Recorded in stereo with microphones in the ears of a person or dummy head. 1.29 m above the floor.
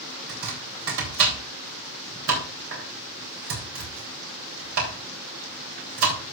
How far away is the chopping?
About 3.5 m.